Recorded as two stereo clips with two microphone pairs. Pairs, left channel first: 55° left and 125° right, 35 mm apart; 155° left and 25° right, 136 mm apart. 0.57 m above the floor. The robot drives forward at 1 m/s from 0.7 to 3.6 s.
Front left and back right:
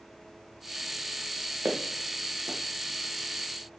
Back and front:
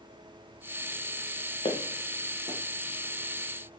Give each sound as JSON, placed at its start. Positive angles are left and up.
{"t": 1.6, "sound": "footsteps", "azimuth_deg": -155, "distance_m": 3.5}